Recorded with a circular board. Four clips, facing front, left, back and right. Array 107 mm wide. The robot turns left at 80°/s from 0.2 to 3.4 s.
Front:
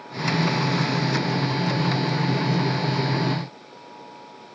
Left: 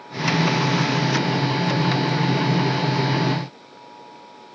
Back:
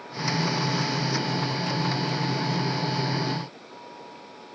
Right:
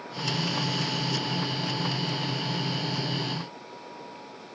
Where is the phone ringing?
No phone ringing in this recording.